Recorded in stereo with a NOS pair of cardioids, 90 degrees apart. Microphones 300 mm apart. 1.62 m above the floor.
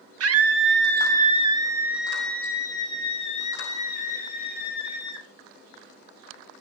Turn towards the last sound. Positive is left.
turn(degrees=35)